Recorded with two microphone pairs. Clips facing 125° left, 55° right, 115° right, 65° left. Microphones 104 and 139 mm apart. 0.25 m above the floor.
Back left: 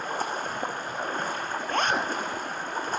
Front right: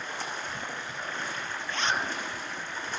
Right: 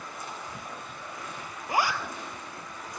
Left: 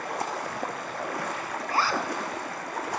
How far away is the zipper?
About 2.5 m.